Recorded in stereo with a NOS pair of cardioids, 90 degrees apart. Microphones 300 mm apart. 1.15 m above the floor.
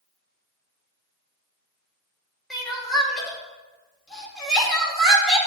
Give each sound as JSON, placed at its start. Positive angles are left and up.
{"t": 2.5, "sound": "crying", "azimuth_deg": 0, "distance_m": 2.0}